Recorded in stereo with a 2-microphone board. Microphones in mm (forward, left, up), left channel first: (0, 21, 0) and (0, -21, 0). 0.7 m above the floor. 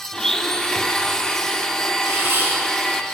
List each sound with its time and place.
0.1 s a blender: 15° left (ahead or behind), 2.0 m
2.0 s a camera shutter: 60° right (ahead or behind), 7 m